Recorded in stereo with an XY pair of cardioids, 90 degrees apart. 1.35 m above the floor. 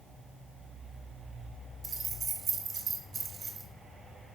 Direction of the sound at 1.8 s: 50° right.